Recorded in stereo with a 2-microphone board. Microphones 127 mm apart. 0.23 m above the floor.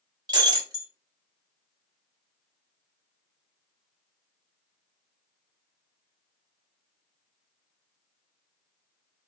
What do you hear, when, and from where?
0.3 s breaking glass: 30° right (ahead or behind), 0.8 m